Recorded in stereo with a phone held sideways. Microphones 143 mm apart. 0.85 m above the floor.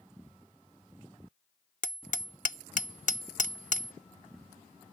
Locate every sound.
1.8 s hammering: 65° left (ahead or behind)